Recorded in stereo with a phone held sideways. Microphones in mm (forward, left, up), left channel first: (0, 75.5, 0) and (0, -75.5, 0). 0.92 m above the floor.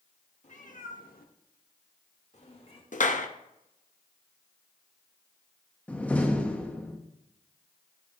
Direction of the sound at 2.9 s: 60° left (ahead or behind).